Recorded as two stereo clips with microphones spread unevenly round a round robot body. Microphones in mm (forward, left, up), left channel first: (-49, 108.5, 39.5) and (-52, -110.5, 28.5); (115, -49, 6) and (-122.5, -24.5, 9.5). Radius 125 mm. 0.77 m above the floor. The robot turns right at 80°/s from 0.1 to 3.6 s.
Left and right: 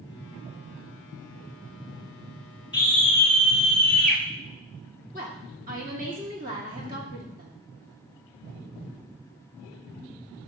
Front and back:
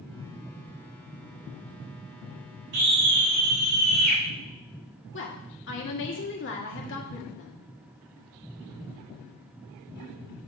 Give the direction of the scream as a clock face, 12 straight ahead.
7 o'clock.